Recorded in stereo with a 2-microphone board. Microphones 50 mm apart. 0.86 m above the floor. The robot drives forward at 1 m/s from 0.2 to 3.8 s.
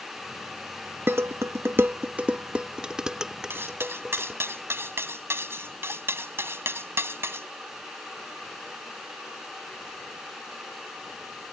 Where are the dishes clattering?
50° right (ahead or behind); by 4.4 s 10° right (ahead or behind).